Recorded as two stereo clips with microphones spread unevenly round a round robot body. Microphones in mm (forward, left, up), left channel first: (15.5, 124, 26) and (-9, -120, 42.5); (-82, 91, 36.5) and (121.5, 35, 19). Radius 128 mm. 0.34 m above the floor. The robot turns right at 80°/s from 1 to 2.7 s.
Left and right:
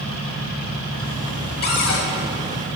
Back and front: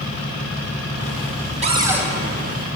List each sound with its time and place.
1.6 s a cupboard door: 40° left, 1.4 m; by 2.1 s 75° left, 1.4 m